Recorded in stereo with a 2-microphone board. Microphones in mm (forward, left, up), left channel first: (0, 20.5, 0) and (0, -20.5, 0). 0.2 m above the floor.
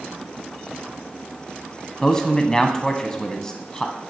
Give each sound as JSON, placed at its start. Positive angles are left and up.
{"t": 2.0, "sound": "a man speaking", "side_deg": 20, "distance_m": 1.1}